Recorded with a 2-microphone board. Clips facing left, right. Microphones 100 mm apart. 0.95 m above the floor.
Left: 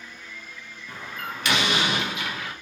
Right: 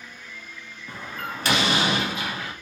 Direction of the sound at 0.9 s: 40° right (ahead or behind).